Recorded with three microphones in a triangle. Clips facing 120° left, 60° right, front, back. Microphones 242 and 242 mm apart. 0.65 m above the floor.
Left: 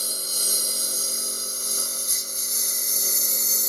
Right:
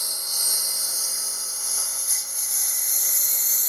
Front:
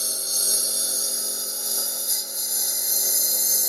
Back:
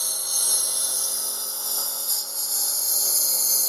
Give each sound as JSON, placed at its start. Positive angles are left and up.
{"t": 0.0, "sound": "a lawn mower", "azimuth_deg": 65}